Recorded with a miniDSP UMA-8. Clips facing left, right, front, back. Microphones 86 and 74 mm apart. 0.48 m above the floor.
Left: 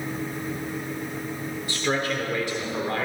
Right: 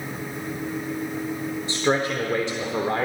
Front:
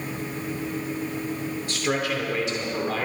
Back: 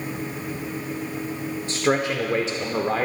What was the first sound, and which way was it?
A man speaking, 140° right.